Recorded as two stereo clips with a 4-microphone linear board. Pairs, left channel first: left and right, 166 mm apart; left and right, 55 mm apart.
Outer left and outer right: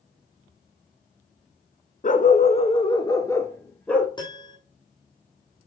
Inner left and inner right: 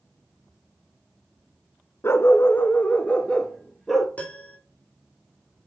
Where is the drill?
No drill in this recording.